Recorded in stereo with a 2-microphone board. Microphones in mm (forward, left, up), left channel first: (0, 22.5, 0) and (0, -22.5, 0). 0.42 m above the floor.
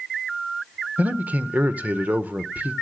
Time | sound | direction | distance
1.0 | a man speaking | 35° right (ahead or behind) | 0.9 m